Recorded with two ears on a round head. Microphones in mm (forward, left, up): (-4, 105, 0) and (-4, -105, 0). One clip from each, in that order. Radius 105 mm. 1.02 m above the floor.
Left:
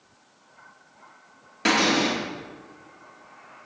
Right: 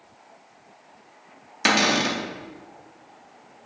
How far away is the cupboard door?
About 2 m.